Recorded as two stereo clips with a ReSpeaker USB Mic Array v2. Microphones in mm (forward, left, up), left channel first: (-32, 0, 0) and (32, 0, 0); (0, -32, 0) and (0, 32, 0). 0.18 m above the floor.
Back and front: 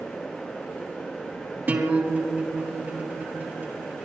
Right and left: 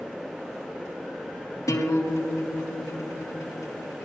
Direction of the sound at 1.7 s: 60° right.